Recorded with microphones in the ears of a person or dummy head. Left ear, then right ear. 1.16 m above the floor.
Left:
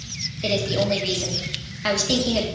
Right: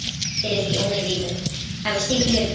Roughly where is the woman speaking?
Left.